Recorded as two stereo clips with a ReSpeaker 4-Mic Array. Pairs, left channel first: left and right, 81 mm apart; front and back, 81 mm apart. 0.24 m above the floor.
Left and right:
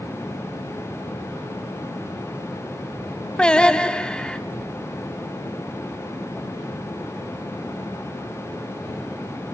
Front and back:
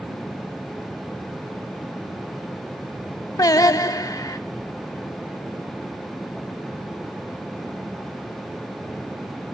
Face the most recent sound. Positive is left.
turn(degrees=15)